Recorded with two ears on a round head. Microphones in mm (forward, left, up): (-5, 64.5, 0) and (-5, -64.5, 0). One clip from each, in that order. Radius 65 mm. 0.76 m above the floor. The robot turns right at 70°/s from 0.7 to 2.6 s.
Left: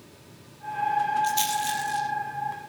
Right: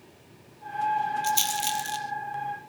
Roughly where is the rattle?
Centre.